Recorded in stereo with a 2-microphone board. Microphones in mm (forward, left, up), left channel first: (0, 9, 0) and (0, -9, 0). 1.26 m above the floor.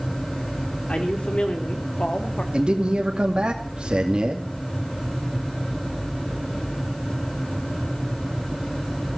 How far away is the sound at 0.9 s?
About 4 m.